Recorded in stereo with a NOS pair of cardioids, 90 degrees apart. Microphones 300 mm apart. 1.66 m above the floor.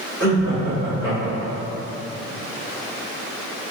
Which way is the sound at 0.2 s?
15° left.